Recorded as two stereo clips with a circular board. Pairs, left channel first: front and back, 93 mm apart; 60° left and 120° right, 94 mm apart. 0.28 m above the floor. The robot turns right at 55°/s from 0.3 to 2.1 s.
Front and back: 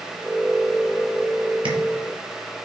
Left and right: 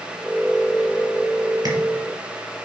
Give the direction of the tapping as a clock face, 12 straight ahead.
6 o'clock.